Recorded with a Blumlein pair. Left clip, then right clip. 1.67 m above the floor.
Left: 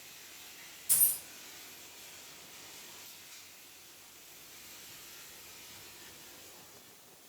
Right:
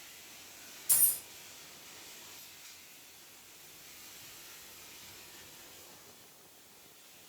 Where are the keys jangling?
5° right, 2.0 m.